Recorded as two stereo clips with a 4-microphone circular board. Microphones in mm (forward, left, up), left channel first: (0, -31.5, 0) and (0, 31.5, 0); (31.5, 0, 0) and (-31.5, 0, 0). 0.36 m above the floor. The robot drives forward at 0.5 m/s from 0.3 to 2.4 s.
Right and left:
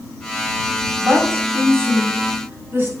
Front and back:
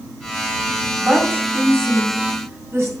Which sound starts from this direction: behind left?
A woman speaking, at 1.0 s.